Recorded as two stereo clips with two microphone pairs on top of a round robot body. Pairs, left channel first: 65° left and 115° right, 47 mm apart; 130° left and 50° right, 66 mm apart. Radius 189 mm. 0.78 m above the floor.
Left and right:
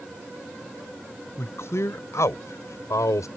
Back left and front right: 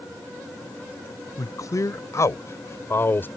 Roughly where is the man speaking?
Left.